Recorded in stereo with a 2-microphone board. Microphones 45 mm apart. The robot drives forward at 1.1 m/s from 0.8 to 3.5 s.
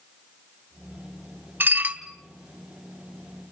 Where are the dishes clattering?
50° right (ahead or behind), 0.9 m; by 2.0 s 35° right (ahead or behind), 1.2 m.